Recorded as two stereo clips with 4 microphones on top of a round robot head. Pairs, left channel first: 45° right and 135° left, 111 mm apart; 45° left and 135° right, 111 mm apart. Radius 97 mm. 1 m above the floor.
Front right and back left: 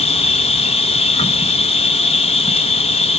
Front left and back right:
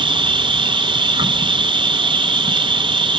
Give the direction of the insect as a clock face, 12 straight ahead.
3 o'clock.